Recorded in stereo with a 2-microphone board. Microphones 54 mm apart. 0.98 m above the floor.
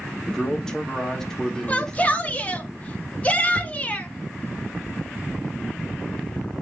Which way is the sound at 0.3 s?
10° left (ahead or behind).